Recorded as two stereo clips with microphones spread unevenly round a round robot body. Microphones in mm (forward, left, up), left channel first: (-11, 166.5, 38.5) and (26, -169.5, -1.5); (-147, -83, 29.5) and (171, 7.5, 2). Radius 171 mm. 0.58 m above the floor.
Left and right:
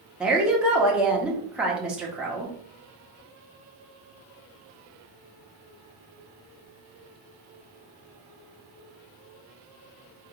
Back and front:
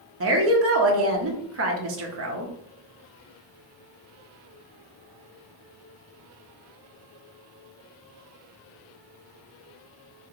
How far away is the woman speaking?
About 1.1 m.